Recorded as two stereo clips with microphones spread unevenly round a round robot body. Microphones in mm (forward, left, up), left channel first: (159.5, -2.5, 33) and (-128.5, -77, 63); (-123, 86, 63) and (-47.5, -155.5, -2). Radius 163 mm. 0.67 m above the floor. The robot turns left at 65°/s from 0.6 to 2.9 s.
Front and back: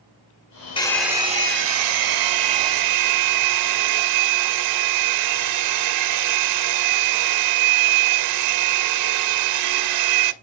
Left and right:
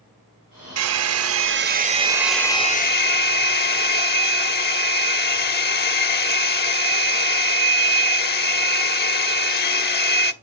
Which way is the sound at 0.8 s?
60° right.